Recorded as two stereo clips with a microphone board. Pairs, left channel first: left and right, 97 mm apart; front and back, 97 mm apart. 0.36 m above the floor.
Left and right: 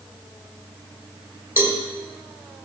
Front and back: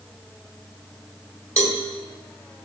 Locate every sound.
1.6 s a cowbell: 140° right, 1.3 m